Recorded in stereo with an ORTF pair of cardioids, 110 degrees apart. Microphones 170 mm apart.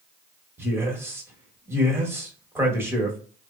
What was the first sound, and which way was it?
A man speaking, 15° right.